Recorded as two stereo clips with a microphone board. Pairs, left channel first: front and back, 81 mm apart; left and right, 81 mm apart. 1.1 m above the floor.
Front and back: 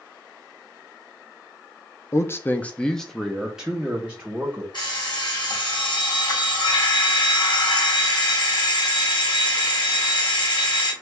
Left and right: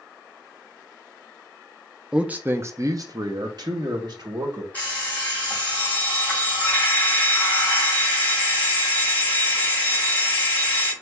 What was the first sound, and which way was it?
A man speaking, 20° right.